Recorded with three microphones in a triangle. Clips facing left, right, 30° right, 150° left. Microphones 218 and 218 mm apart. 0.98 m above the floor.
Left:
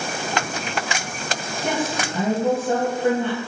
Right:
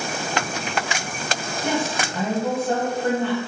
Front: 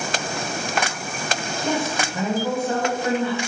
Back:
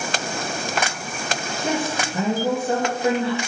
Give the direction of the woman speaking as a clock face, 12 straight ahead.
7 o'clock.